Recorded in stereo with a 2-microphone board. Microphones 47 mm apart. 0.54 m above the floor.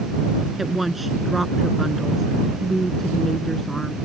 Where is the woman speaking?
5° right (ahead or behind); by 4.0 s 10° left (ahead or behind).